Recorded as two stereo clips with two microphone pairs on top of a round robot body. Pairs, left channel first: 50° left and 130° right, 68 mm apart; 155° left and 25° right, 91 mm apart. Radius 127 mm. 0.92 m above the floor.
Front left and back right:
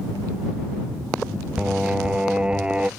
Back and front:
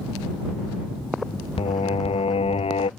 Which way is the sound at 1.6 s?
155° left.